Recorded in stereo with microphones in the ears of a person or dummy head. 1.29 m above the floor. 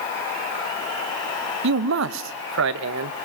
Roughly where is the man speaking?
Right.